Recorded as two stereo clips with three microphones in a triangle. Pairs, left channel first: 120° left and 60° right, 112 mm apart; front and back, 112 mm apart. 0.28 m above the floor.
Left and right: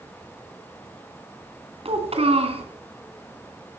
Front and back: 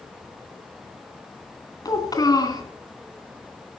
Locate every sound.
1.9 s a child speaking: 50° right, 2.5 m